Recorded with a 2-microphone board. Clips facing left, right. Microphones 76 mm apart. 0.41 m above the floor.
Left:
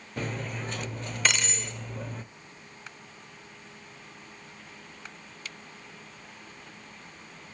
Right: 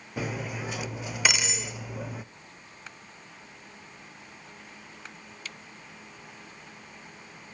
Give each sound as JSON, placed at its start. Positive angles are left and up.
{"t": 0.2, "sound": "cutlery clinking", "side_deg": -5, "distance_m": 0.5}